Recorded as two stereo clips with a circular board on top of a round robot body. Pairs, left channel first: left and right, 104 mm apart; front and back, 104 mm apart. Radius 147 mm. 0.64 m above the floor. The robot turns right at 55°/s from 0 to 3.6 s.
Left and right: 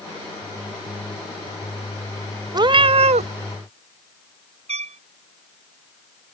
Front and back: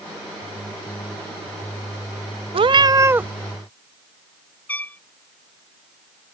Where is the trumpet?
75° right.